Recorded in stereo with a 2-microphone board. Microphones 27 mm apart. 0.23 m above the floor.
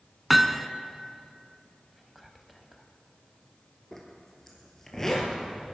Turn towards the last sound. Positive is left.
turn(degrees=15)  # may be behind; listen again after turning